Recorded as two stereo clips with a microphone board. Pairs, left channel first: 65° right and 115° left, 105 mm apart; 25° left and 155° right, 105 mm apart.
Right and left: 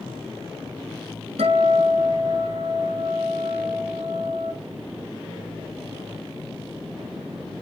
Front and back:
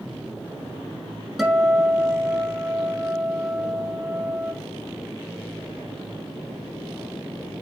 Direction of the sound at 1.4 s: 115° left.